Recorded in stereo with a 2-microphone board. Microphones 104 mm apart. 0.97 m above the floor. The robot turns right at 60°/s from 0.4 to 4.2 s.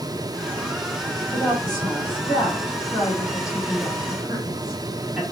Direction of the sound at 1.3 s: 15° left (ahead or behind).